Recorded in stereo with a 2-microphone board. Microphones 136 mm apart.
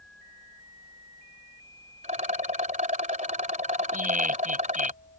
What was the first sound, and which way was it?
A rattle, 65° right (ahead or behind).